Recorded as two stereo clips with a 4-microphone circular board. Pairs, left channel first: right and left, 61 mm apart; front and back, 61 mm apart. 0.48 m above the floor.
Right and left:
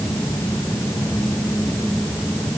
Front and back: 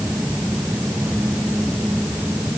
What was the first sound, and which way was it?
Only background noise.